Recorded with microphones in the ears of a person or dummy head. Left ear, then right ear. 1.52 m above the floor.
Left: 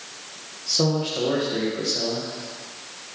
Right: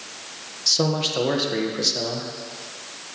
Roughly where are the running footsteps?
I don't hear running footsteps.